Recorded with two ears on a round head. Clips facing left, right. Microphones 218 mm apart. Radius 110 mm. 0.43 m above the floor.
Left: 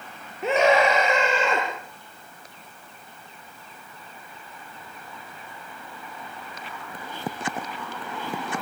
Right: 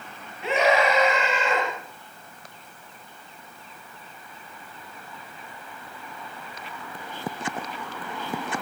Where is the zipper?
I don't hear a zipper.